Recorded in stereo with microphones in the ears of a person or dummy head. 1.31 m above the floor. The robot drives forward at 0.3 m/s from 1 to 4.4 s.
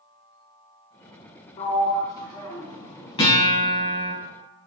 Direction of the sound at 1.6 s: 35° left (ahead or behind).